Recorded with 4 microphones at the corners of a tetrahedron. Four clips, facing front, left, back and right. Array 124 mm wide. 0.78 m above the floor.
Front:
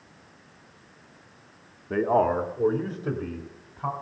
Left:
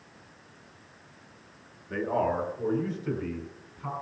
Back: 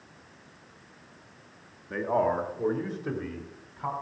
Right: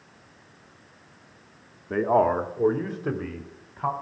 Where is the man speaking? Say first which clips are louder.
Right 7 dB, front 4 dB; 50° right, 1.2 m; by 3.9 s 80° right, 2.5 m.